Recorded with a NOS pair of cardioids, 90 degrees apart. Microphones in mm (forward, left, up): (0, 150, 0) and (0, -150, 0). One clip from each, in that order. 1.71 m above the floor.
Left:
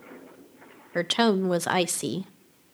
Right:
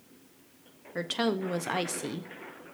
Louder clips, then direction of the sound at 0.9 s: Left 7 dB; 40° left.